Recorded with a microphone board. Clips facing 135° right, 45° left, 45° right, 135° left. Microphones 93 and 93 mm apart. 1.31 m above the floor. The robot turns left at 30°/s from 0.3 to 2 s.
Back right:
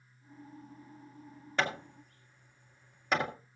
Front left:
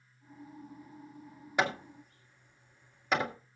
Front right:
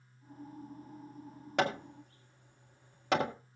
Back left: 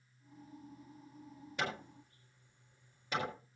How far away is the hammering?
About 1.9 m.